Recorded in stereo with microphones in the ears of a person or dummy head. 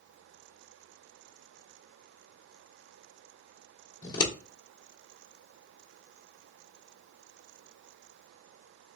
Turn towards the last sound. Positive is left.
turn(degrees=25)  # may be behind; listen again after turning